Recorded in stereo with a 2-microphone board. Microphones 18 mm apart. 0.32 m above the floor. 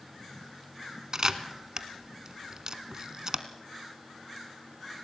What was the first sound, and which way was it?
A camera shutter, 45° right (ahead or behind).